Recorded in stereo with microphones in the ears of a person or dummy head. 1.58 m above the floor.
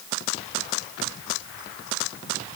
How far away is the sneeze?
I don't hear a sneeze.